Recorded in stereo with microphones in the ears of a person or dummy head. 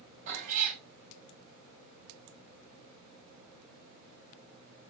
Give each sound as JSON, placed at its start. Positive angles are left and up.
{"t": 0.3, "sound": "a cat meowing", "side_deg": -40, "distance_m": 2.0}